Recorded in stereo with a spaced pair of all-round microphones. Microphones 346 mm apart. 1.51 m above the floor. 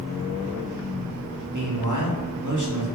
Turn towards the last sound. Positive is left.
turn(degrees=-60)  # may be behind; listen again after turning